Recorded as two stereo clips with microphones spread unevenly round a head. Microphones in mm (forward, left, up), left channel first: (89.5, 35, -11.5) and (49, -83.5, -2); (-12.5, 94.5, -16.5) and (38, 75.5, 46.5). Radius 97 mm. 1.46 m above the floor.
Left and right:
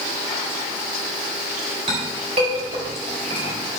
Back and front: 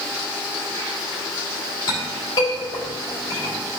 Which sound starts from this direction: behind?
A clink, at 1.9 s.